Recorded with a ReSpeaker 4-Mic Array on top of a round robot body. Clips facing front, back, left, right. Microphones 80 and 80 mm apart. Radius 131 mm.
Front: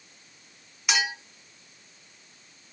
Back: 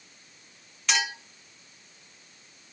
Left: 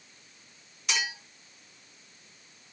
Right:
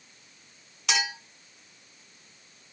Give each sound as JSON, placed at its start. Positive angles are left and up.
{"t": 0.9, "sound": "a clink", "azimuth_deg": -80, "distance_m": 3.5}